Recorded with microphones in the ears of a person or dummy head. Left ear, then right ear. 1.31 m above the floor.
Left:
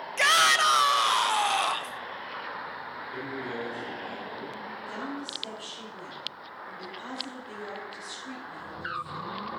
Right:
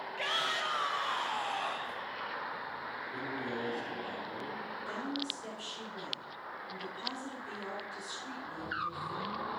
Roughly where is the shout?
Left.